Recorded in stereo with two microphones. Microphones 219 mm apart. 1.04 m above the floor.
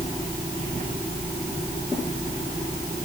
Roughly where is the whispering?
No whispering in this recording.